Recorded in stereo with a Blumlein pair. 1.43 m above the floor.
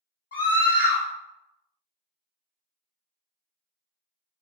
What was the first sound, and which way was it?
A scream, 65° left.